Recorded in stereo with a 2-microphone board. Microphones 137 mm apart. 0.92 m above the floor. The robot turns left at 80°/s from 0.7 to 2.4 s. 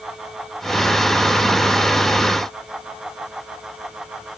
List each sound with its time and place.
Only background noise.